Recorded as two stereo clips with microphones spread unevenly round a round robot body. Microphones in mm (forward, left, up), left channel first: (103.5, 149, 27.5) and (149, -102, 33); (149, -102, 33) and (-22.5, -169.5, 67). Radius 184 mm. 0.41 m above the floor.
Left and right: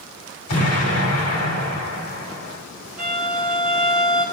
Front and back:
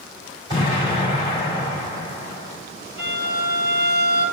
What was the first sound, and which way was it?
An explosion, 125° left.